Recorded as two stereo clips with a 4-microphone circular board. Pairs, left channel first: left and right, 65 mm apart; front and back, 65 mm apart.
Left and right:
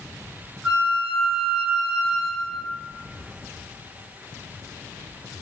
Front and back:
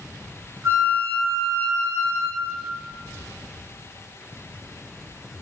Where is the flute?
155° right, 1.3 m.